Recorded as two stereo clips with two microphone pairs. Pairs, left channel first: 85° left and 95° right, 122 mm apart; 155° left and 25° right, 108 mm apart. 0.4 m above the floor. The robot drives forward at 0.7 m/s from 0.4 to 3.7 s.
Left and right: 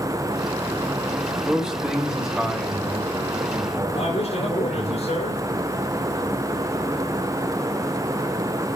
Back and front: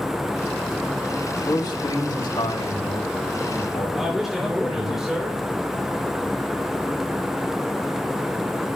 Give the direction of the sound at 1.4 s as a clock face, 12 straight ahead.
6 o'clock.